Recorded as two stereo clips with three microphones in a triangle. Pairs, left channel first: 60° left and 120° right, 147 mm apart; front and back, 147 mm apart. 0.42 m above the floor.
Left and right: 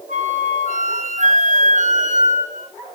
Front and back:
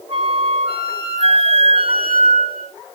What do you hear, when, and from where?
0.1 s a flute: 140° right, 2.5 m